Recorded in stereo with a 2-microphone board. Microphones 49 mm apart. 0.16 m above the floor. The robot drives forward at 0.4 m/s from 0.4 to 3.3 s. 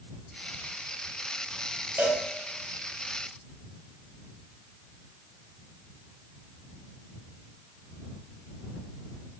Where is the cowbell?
45° right (ahead or behind), 1.1 m.